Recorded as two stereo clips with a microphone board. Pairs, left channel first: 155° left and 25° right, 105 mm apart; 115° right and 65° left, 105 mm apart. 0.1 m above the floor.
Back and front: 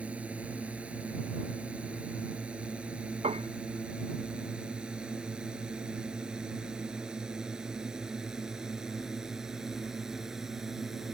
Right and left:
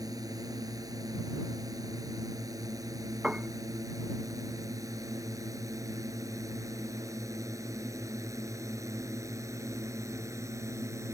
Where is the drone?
45° left; by 11.2 s 60° left.